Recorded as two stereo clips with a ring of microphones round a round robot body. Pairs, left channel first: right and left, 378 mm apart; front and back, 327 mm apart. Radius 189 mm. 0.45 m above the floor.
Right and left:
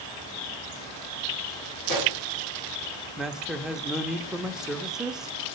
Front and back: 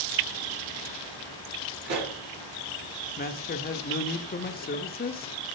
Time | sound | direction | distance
1.9 | a pop | 130° right | 3.5 m
3.2 | a man speaking | 5° left | 0.7 m